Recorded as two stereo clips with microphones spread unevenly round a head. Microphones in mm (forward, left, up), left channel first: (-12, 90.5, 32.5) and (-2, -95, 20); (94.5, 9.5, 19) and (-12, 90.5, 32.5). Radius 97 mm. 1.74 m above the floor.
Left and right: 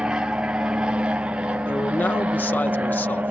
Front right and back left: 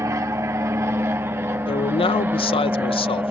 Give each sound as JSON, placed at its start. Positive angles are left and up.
{"t": 0.0, "sound": "an aircraft", "azimuth_deg": -165}
{"t": 1.7, "sound": "a man speaking", "azimuth_deg": 15}